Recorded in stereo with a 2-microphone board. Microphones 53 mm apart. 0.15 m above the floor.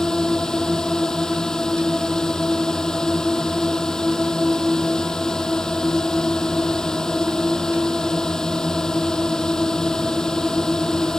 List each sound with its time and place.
0.0 s a drone: 10° left (ahead or behind)